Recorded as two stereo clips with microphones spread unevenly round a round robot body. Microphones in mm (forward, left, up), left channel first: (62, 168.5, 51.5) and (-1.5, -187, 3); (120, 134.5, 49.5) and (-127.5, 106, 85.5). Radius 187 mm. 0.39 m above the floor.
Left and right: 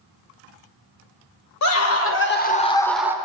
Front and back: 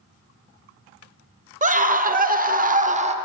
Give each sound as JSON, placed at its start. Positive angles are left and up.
{"t": 1.6, "sound": "a scream", "azimuth_deg": 125, "distance_m": 1.6}